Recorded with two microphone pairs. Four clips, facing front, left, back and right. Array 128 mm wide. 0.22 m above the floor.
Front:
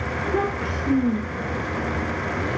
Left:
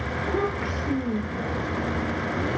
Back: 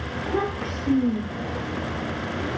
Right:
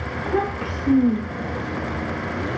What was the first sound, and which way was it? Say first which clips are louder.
A child speaking: right 3 dB, front 1 dB; 95° right.